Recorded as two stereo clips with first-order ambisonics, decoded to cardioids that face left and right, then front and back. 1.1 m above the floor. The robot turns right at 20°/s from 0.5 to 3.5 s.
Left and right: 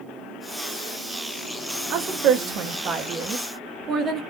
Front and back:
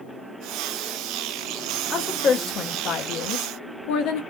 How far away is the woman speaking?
About 0.5 m.